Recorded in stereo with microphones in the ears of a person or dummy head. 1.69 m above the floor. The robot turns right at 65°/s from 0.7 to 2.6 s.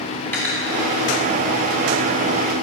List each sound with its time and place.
0.3 s cutlery clinking: 15° left (ahead or behind), 2.0 m